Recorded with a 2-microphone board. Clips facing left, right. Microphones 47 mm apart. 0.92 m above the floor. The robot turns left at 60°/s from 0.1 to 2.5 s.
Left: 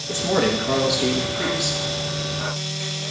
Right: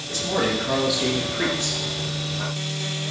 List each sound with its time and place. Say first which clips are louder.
0.1 s a man speaking: left 3 dB; 40° left, 1.3 m; by 1.8 s 60° right, 1.3 m